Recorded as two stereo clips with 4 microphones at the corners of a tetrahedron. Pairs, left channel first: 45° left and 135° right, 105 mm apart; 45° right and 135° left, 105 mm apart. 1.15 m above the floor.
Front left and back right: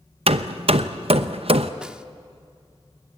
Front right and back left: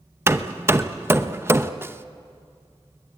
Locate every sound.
0.3 s hammering: 160° right, 0.8 m
1.8 s a snare drum: 160° left, 0.7 m